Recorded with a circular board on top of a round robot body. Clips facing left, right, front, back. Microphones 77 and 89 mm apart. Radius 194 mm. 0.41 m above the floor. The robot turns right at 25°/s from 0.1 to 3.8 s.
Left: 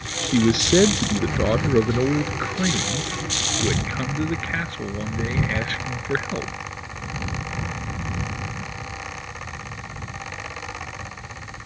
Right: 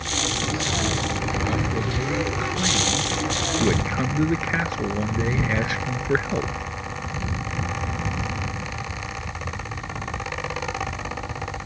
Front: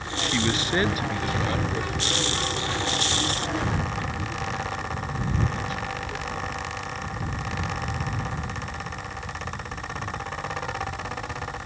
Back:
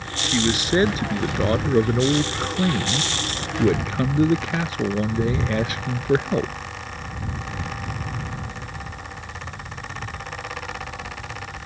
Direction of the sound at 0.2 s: 100° left.